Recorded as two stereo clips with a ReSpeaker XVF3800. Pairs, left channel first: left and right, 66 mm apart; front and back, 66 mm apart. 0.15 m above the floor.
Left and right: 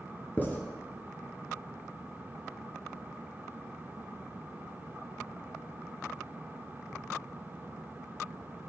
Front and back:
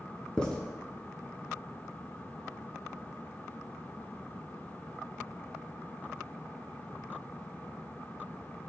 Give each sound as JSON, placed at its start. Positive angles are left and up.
{"t": 0.4, "sound": "writing", "azimuth_deg": 65, "distance_m": 0.7}